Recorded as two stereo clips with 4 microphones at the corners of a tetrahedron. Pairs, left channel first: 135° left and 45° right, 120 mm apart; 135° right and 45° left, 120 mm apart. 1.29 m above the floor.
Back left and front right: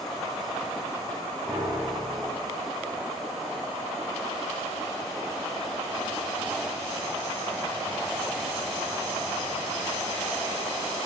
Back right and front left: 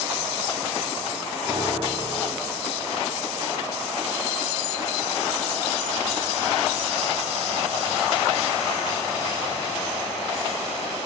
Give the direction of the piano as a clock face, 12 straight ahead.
12 o'clock.